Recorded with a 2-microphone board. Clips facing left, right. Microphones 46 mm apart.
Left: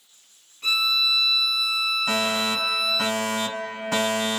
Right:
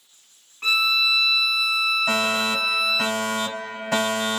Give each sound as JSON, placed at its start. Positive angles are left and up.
{"t": 0.6, "sound": "a violin", "side_deg": -55, "distance_m": 1.1}
{"t": 2.1, "sound": "a fire alarm", "side_deg": -15, "distance_m": 2.0}